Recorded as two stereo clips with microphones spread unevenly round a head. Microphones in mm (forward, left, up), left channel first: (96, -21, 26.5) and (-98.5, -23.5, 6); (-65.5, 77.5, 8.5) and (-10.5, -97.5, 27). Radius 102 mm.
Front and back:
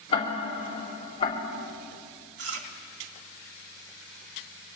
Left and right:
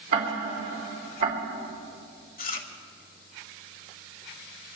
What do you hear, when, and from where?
0.1 s ticking: 60° right, 3 m
2.4 s chewing: 150° left, 1.9 m